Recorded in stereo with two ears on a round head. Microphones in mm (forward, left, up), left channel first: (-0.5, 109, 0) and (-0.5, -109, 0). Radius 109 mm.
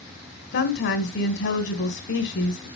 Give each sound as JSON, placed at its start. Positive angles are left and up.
{"t": 0.5, "sound": "a woman speaking", "side_deg": 50, "distance_m": 1.7}